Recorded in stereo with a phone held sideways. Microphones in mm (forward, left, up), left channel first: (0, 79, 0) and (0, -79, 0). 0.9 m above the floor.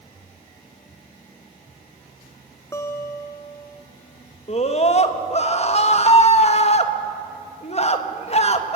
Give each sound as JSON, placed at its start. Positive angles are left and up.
{"t": 2.7, "sound": "a guitar", "side_deg": 20, "distance_m": 0.9}
{"t": 4.5, "sound": "a scream", "side_deg": 45, "distance_m": 1.3}